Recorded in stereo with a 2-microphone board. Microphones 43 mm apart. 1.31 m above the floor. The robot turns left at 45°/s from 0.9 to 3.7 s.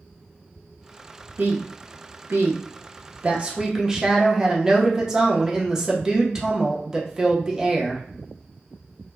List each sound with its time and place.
1.4 s a woman speaking: 60° right, 0.7 m; by 8.0 s 165° right, 0.7 m